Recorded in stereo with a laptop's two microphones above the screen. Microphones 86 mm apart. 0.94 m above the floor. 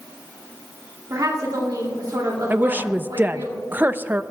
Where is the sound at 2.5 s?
20° right (ahead or behind), 0.6 m.